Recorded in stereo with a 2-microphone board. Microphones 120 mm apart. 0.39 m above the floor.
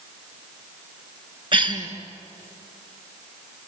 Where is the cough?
40° right (ahead or behind), 4 m.